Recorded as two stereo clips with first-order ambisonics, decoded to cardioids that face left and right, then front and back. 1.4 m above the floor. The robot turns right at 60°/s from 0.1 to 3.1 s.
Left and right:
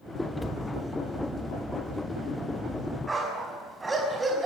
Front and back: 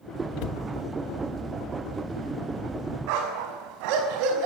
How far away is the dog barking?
About 5.5 m.